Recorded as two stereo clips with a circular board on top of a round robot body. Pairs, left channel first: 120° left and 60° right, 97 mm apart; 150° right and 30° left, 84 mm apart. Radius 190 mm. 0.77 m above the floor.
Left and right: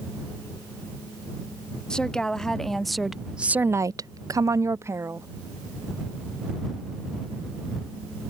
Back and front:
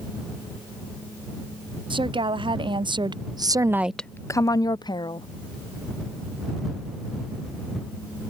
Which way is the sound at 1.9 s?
35° left.